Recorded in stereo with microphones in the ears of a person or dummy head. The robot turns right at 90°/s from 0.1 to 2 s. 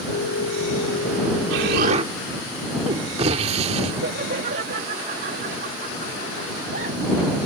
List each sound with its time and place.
1.5 s an explosion: 80° right; by 3.9 s 35° right
4.0 s laughter: 50° right (ahead or behind)